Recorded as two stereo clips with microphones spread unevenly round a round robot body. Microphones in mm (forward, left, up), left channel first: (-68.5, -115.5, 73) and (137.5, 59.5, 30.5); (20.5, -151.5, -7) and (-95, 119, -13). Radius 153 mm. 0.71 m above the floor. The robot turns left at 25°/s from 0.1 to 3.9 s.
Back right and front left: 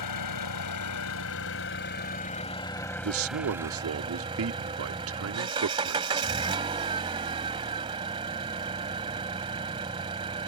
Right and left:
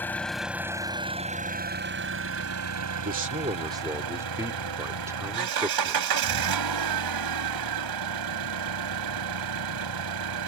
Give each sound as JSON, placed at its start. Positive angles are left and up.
{"t": 0.0, "sound": "an engine running", "azimuth_deg": -150}
{"t": 3.0, "sound": "a man speaking", "azimuth_deg": 55}